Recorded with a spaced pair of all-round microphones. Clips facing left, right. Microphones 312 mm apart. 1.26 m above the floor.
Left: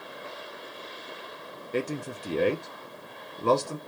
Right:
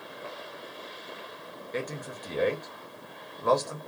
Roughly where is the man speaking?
Left.